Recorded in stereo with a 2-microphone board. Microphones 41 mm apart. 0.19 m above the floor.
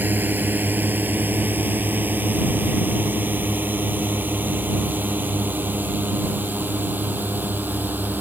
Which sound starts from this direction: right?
A drone, at 0.0 s.